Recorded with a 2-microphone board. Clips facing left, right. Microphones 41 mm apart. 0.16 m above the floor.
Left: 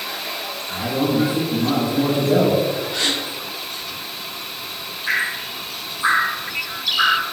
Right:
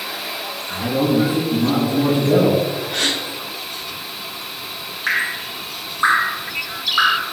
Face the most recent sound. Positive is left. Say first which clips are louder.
# right 1 dB
turn(degrees=-60)  # may be behind; listen again after turning